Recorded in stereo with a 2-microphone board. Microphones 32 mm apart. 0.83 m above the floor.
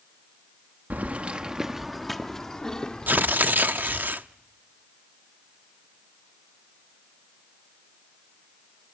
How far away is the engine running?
I don't hear an engine running.